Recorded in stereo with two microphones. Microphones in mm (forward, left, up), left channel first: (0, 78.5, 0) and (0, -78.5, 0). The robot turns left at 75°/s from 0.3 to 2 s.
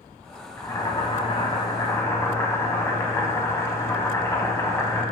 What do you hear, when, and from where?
0.6 s boiling: 145° left, 0.6 m; by 5.0 s 35° left, 0.6 m